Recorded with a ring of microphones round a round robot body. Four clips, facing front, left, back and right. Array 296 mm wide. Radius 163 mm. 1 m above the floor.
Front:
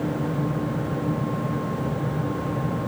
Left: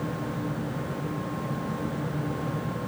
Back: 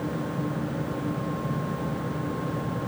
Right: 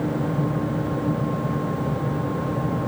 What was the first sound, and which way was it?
Only background noise.